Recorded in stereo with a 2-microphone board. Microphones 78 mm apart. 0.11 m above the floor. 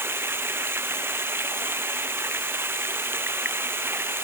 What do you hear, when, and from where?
0.0 s running water: 30° right (ahead or behind)